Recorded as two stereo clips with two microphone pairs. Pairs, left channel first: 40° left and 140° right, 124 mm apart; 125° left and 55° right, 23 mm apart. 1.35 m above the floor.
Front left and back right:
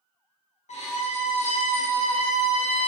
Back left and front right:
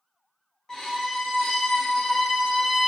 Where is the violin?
60° left, 0.6 m.